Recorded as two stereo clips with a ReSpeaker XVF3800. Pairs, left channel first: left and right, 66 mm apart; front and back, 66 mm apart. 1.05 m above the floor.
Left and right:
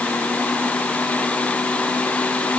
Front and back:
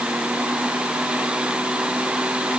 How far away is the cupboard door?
No cupboard door in this recording.